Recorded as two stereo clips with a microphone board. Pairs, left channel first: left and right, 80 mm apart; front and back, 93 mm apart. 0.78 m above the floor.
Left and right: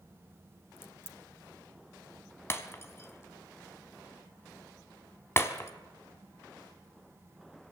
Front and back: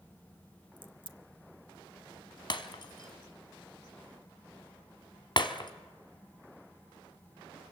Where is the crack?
150° left, 1.2 m.